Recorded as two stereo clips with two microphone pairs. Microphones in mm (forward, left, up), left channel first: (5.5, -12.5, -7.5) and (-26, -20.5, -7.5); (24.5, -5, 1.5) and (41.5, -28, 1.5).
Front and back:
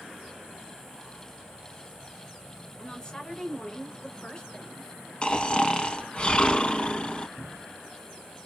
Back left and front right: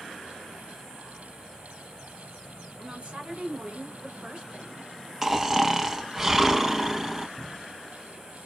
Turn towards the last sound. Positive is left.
turn(degrees=-50)